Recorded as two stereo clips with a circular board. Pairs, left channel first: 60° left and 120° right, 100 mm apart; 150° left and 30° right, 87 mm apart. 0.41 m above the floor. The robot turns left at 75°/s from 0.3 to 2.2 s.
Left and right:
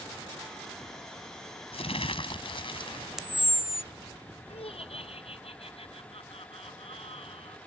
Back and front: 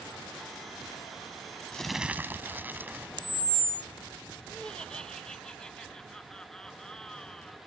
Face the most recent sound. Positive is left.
turn(degrees=70)